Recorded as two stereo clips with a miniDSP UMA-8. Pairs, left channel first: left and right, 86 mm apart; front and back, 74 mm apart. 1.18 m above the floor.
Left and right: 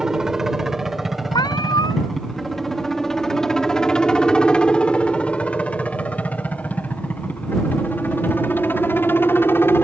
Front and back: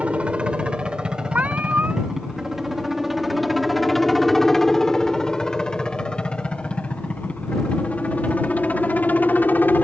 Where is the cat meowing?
115° left.